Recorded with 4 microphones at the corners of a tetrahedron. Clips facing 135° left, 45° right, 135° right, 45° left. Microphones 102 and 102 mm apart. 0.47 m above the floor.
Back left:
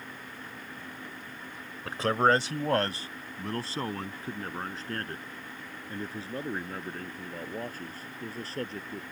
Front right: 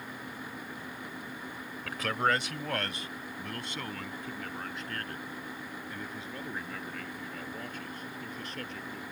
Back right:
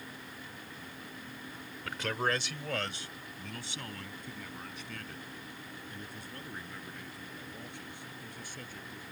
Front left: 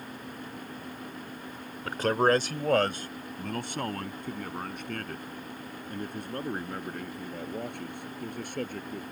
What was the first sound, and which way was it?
A man speaking, 85° left.